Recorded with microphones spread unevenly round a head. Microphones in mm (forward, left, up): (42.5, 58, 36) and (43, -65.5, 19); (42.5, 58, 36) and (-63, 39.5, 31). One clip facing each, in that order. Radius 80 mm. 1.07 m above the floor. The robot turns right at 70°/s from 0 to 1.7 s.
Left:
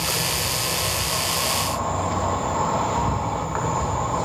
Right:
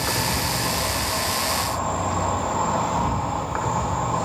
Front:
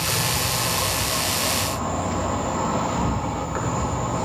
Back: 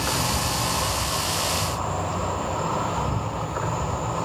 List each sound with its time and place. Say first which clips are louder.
0.0 s an insect: right 2 dB, back 1 dB; 125° right, 3.5 m; by 4.3 s 10° right, 3.5 m